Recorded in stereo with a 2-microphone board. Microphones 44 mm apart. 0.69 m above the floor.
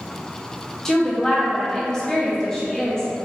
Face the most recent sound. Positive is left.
turn(degrees=15)  # may be behind; listen again after turning